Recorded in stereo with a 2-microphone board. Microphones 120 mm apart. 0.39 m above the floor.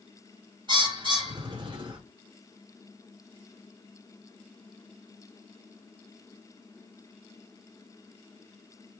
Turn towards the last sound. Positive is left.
turn(degrees=-40)  # may be behind; listen again after turning